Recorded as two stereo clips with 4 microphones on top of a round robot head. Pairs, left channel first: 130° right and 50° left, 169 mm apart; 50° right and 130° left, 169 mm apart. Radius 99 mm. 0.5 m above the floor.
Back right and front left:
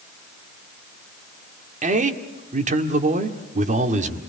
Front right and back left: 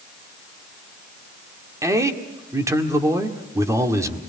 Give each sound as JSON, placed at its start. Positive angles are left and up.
{"t": 1.8, "sound": "a man speaking", "azimuth_deg": 65, "distance_m": 1.8}